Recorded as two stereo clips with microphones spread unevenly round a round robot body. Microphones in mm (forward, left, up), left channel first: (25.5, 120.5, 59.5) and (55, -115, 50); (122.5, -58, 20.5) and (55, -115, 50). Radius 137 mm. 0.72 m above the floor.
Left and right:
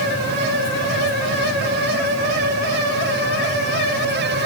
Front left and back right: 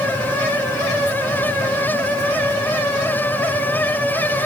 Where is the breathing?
No breathing in this recording.